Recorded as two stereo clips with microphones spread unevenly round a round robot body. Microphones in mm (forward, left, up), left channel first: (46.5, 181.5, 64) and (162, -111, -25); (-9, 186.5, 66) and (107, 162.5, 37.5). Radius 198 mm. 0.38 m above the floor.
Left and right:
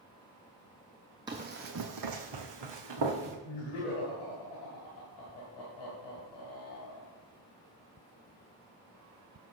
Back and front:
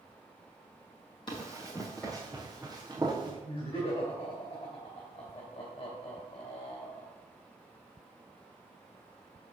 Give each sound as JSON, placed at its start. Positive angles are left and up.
{"t": 1.3, "sound": "running footsteps", "azimuth_deg": -160, "distance_m": 0.5}
{"t": 3.5, "sound": "laughter", "azimuth_deg": 125, "distance_m": 3.0}